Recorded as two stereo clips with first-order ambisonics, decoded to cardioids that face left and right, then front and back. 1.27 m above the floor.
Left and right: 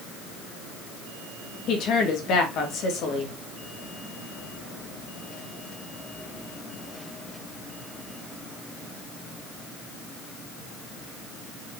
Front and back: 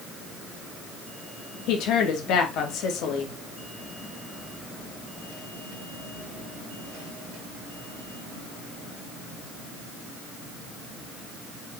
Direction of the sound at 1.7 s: 40° left.